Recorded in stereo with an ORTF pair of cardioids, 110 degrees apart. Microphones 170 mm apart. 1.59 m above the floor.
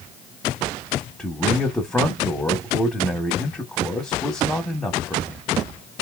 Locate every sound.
1.2 s a man speaking: 5° left, 1.1 m